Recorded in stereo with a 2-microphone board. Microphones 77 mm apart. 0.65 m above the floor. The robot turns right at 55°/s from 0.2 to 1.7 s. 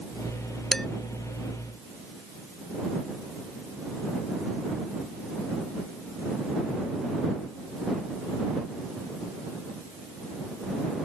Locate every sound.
0.7 s dishes clattering: 10° left (ahead or behind); by 0.9 s centre (ahead or behind)